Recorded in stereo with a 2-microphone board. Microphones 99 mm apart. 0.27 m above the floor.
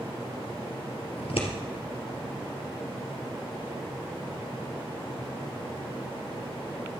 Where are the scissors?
75° left (ahead or behind), 2.5 m.